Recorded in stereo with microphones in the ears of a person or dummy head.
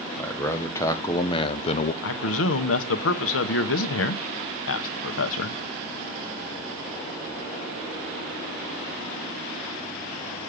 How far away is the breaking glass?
I don't hear breaking glass.